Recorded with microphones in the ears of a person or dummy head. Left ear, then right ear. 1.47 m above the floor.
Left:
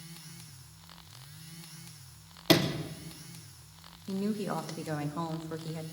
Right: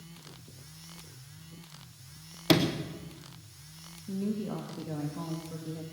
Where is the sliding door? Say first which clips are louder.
Even; 5° left (ahead or behind), 1.0 m.